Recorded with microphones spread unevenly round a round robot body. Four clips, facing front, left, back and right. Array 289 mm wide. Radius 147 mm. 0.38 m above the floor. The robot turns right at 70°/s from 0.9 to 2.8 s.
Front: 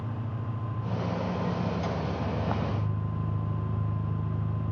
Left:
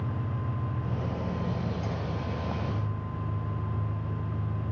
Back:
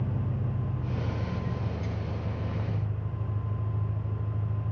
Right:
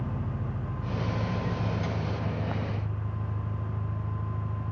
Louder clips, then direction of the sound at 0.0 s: Even, back 3 dB; 125° right.